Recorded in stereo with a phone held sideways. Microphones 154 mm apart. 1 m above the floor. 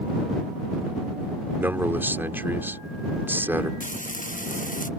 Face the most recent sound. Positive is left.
turn(degrees=60)  # may be behind; listen again after turning